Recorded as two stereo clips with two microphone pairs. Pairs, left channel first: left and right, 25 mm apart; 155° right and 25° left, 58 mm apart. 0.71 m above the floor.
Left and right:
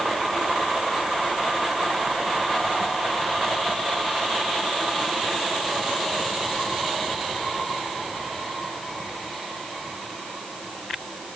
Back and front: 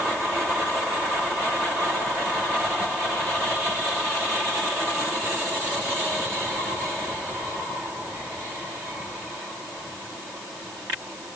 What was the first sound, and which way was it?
Only background noise.